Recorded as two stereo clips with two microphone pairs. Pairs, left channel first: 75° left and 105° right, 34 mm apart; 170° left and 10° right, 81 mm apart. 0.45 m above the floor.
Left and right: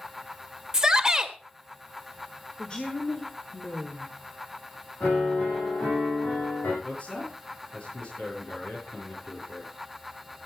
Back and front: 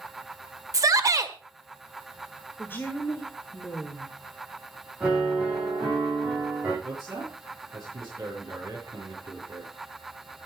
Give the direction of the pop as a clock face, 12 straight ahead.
No pop in this recording.